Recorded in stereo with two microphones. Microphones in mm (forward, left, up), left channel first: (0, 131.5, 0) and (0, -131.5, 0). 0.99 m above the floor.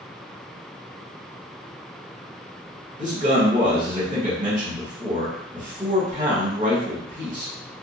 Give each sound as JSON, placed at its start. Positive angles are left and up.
{"t": 3.0, "sound": "a man speaking", "side_deg": -30, "distance_m": 1.4}